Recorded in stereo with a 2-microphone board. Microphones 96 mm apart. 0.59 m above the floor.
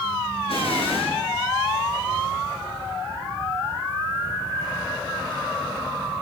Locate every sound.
0.5 s an explosion: 75° left (ahead or behind), 8.5 m